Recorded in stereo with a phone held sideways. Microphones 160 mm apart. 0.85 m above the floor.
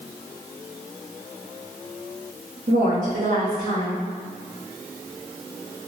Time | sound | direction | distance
2.7 | a woman speaking | 55° right (ahead or behind) | 1.3 m